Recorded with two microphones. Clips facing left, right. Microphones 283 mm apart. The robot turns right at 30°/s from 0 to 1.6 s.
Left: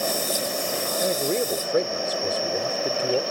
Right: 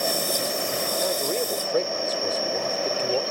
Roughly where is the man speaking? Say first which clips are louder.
Left 4 dB; left.